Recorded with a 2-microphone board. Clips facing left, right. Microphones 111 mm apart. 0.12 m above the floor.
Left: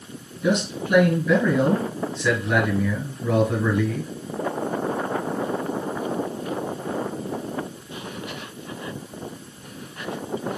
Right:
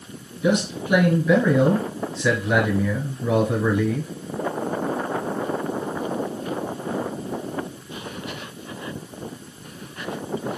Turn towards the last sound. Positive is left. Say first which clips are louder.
# right 1 dB
turn(degrees=-10)  # may be behind; listen again after turning